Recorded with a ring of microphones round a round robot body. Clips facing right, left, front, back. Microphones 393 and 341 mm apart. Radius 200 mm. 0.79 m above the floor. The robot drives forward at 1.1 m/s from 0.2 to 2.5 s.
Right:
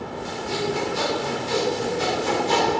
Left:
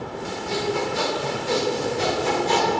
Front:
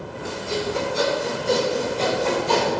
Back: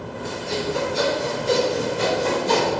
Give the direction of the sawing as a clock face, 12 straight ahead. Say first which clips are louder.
Left 1 dB, even; 9 o'clock.